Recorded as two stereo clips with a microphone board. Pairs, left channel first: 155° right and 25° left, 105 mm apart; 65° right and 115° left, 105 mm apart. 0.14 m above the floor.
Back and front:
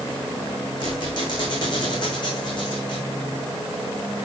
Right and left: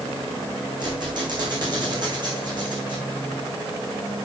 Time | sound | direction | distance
0.8 | a squeak | 155° left | 5 m